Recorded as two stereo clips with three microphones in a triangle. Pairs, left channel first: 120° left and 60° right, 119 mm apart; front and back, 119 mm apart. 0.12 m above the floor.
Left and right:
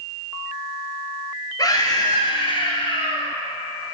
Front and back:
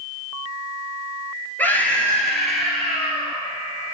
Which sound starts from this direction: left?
A scream, at 1.6 s.